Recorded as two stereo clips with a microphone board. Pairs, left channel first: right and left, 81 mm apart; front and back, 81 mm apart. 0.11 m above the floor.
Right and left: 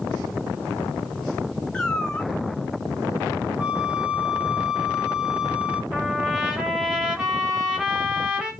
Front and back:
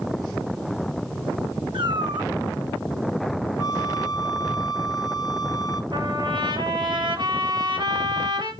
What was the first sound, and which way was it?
A cat meowing, 170° right.